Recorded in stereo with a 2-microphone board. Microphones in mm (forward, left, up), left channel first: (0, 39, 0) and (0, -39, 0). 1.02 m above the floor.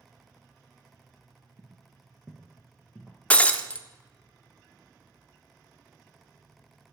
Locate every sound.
1.6 s footsteps: 25° right (ahead or behind), 1.1 m; by 3.2 s 15° left (ahead or behind), 1.9 m
3.3 s breaking glass: 15° left (ahead or behind), 0.6 m